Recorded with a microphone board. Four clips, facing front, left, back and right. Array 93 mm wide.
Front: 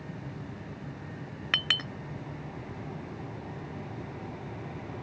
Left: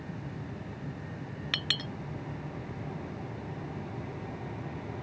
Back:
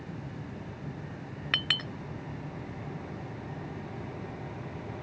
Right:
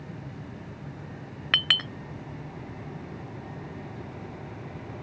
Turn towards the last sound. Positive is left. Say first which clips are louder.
# right 9 dB, front 1 dB
turn(degrees=-80)